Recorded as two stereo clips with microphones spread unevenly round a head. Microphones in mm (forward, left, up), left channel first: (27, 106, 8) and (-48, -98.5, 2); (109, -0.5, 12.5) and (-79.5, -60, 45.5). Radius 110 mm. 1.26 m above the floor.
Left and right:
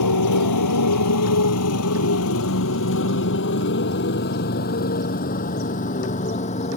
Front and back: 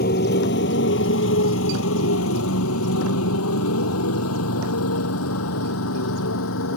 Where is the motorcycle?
65° left; by 6.8 s 5° left.